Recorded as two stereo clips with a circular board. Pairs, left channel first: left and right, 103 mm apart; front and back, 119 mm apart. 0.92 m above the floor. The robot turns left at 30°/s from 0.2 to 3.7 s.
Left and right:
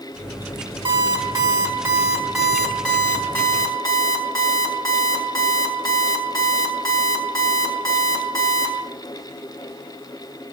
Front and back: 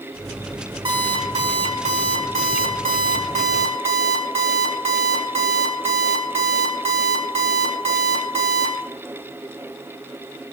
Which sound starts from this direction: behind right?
An alarm clock, at 0.8 s.